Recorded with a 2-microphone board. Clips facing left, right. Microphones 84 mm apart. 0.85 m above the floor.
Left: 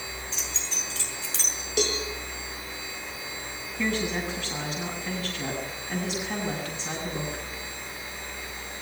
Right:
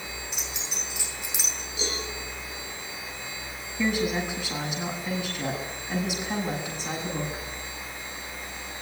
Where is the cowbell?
80° left, 8 m.